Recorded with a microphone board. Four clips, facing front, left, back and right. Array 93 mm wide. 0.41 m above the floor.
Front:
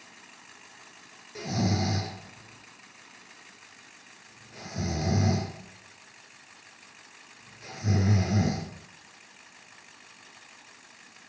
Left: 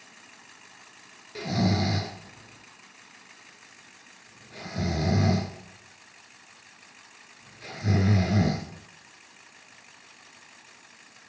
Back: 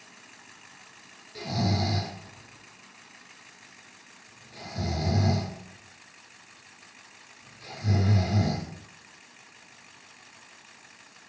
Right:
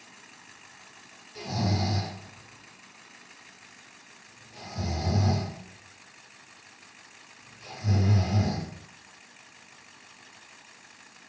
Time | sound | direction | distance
1.4 | snoring | 70° left | 1.7 m